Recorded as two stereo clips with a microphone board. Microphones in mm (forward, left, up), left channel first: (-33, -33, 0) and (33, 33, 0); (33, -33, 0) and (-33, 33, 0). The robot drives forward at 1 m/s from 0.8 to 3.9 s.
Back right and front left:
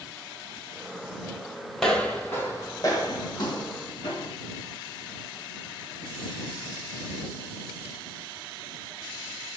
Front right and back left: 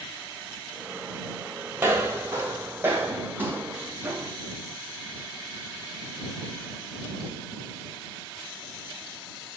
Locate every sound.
1.8 s footsteps: 140° left, 1.5 m; by 4.3 s 150° right, 3 m